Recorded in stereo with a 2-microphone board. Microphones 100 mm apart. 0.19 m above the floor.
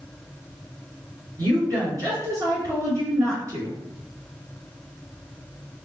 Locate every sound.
1.4 s a woman speaking: 40° right (ahead or behind), 1.9 m